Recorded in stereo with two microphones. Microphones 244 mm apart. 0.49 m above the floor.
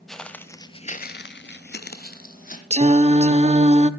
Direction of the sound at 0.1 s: Centre (ahead or behind).